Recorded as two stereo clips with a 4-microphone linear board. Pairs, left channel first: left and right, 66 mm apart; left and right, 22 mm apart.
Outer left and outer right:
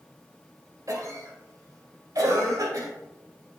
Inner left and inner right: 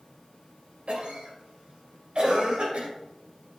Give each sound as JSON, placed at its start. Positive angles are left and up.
{"t": 0.9, "sound": "a cough", "side_deg": -60, "distance_m": 2.0}